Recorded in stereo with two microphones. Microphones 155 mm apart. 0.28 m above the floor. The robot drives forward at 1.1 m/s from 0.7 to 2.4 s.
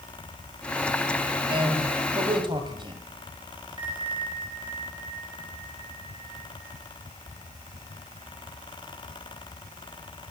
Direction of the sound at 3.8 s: 30° right (ahead or behind).